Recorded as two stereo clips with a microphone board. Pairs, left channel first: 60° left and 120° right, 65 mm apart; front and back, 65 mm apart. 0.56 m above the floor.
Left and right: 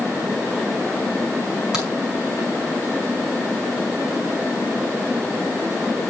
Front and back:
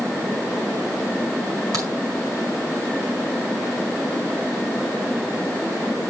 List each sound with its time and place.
1.7 s a crack: 160° left, 5.5 m